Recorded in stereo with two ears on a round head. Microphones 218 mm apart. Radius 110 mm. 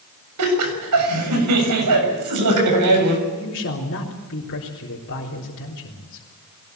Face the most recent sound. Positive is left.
turn(degrees=50)  # may be behind; listen again after turning